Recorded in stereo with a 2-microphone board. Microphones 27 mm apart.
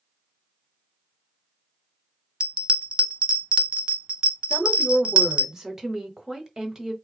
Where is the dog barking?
No dog barking in this recording.